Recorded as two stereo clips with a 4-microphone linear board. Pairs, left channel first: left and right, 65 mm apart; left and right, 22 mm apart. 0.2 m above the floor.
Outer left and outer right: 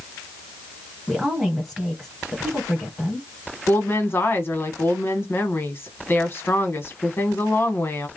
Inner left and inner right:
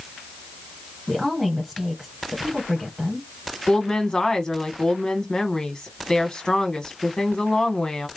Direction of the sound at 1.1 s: 5° right (ahead or behind).